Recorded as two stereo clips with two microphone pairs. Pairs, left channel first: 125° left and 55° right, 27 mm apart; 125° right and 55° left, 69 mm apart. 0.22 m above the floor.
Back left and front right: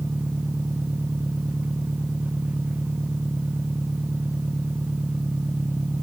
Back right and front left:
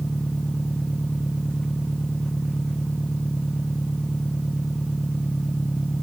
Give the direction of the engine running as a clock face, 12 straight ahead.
1 o'clock.